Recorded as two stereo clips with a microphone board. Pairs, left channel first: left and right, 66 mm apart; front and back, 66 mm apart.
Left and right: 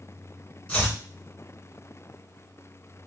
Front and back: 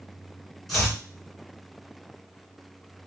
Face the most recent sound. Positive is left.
turn(degrees=90)